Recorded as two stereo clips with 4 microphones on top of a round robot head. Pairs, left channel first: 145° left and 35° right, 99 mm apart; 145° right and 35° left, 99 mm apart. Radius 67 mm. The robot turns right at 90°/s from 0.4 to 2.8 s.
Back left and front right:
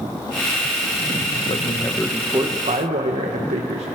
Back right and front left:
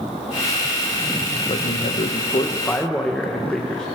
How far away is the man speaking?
About 1.2 m.